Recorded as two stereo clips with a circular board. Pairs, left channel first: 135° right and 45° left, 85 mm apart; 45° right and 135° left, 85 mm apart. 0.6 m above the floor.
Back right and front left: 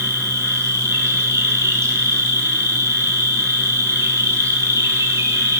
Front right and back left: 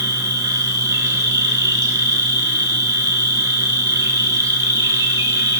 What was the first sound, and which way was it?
An insect, 95° left.